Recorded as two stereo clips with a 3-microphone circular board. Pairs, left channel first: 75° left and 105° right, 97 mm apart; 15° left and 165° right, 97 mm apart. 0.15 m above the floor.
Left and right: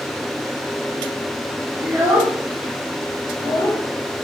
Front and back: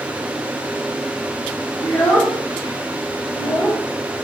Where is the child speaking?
45° right, 1.5 m; by 3.8 s 25° left, 1.3 m.